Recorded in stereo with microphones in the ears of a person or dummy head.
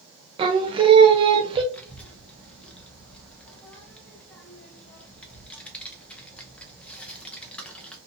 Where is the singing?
20° right (ahead or behind), 0.5 m.